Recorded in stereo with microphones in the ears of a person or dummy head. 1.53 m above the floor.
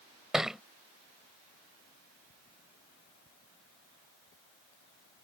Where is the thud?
Centre (ahead or behind).